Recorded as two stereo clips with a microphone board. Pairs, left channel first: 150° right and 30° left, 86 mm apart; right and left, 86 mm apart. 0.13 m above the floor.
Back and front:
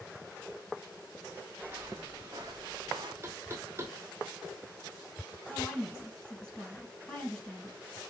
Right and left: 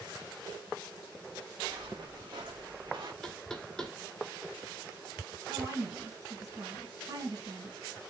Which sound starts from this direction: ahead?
Knocking, at 3.2 s.